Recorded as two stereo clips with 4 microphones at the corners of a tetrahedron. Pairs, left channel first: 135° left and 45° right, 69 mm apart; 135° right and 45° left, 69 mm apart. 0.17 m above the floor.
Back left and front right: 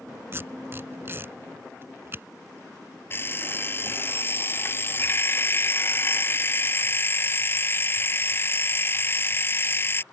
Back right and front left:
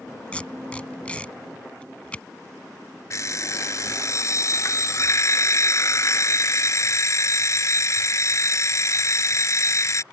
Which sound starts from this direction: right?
Tape being pulled, at 0.3 s.